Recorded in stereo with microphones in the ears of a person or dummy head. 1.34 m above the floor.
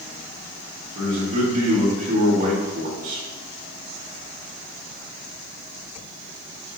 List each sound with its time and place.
0.9 s a man speaking: 50° right (ahead or behind), 2.5 m